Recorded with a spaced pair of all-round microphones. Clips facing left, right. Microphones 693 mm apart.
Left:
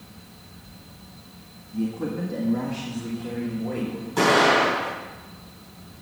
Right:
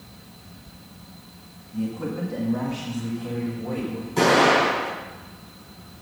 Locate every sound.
1.7 s a man speaking: 5° right (ahead or behind), 1.2 m; by 4.1 s 40° right (ahead or behind), 3 m
4.2 s an explosion: 55° right (ahead or behind), 6.5 m